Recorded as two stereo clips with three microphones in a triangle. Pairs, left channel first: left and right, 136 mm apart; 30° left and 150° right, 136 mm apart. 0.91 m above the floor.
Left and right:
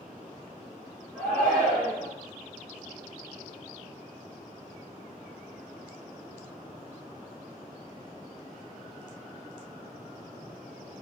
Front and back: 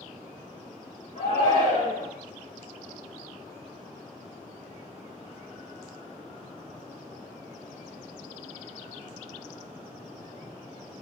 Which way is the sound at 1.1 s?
10° right.